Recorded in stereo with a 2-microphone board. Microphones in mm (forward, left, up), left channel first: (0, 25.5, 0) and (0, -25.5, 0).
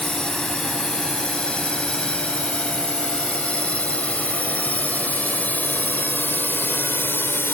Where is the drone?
20° left (ahead or behind); by 7.5 s 50° left (ahead or behind).